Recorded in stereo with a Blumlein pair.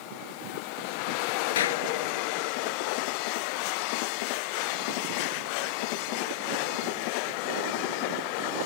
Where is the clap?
60° left.